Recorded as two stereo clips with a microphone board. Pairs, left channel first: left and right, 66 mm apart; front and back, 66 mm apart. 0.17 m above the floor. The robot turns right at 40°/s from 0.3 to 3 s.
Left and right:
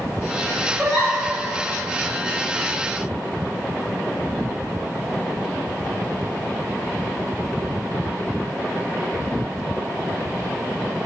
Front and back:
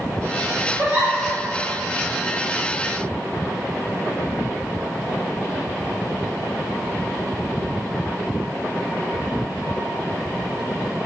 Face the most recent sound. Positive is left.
turn(degrees=-65)